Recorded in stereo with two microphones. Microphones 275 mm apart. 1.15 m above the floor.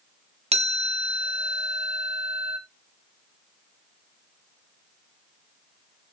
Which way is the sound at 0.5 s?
20° right (ahead or behind).